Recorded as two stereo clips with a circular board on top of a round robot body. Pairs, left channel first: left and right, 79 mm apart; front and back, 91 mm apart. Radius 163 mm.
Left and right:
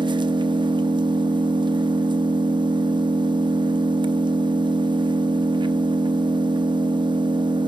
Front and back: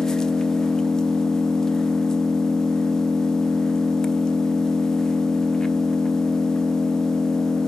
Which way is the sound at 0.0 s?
85° right.